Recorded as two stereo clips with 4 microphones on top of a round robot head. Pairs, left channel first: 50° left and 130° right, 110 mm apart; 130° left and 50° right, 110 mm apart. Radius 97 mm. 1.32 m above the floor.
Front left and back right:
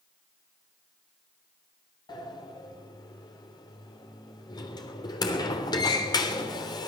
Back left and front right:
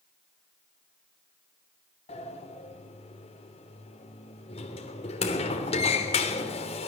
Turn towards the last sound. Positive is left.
turn(degrees=100)